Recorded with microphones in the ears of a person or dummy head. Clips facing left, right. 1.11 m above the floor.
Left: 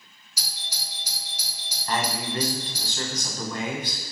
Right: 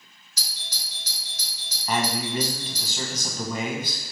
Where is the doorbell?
10° left (ahead or behind), 2.0 m.